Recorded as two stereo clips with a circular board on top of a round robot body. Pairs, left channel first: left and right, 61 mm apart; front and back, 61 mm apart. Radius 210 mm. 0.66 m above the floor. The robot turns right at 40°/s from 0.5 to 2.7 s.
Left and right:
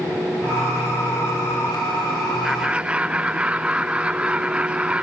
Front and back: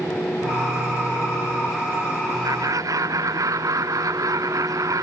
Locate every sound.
2.4 s laughter: 175° right; by 5.0 s 160° right